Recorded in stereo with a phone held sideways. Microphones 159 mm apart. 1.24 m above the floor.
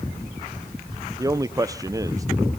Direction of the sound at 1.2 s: 20° right (ahead or behind).